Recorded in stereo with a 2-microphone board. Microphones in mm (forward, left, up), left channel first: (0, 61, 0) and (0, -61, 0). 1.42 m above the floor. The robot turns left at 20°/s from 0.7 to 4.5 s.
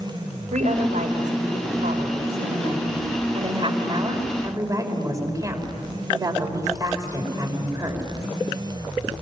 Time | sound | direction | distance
0.5 | a woman speaking | 75° right | 5 m